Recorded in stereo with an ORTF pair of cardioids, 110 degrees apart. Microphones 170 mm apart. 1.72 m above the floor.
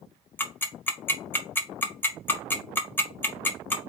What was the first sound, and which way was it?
Ticking, 10° left.